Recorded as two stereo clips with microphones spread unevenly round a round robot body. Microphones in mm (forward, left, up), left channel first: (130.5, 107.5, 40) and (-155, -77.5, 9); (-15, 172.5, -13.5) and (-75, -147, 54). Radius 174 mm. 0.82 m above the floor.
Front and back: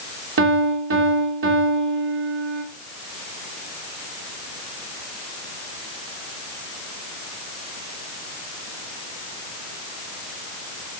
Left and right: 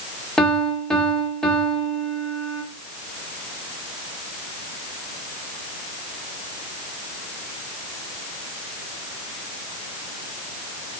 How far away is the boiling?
No boiling in this recording.